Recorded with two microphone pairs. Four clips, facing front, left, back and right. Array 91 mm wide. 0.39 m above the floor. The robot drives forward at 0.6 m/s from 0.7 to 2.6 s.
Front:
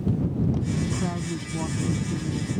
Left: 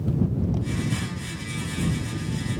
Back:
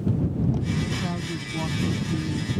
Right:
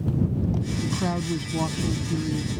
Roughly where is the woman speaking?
Right.